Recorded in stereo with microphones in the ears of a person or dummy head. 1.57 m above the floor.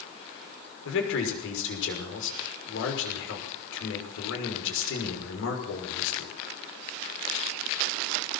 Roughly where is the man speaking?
Left.